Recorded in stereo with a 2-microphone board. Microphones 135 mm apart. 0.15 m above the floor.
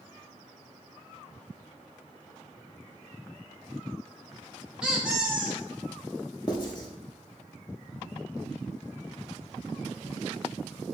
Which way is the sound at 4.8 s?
5° right (ahead or behind).